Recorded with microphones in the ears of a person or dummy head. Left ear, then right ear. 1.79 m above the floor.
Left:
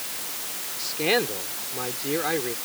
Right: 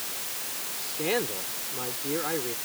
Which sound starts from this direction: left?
A man speaking, at 0.8 s.